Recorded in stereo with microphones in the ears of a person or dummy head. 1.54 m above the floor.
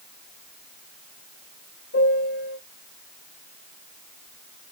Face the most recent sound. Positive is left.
turn(degrees=80)